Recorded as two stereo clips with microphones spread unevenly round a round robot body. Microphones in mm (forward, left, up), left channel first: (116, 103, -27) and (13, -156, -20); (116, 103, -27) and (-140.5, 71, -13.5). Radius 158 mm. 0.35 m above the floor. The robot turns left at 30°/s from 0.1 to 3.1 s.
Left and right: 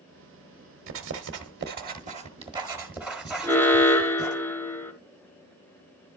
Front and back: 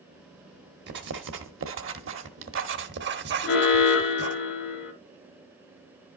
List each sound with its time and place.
0.9 s writing: 135° right, 1.1 m; by 4.4 s 160° left, 1.1 m
3.4 s an alarm: 10° right, 1.6 m